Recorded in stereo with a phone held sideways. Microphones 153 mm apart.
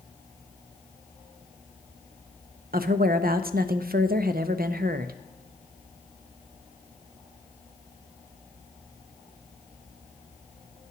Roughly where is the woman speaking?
Right.